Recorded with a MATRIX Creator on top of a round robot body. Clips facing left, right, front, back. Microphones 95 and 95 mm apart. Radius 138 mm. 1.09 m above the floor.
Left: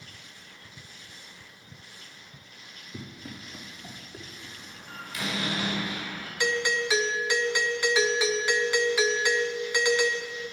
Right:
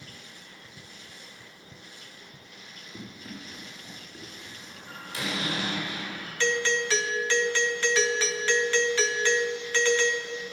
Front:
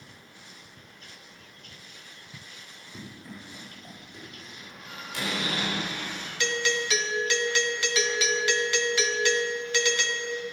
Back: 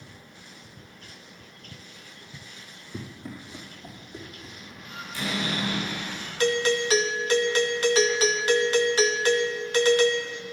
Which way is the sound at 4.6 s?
30° right.